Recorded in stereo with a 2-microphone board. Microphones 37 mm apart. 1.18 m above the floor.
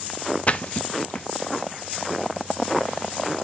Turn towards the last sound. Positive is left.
turn(degrees=35)  # may be behind; listen again after turning